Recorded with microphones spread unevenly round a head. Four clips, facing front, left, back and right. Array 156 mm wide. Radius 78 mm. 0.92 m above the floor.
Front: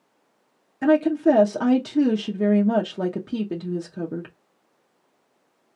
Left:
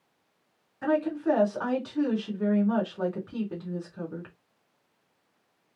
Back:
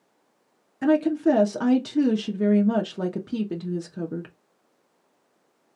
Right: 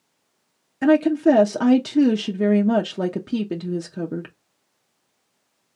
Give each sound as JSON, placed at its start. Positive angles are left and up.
{"t": 0.8, "sound": "a woman speaking", "azimuth_deg": -85, "distance_m": 0.7}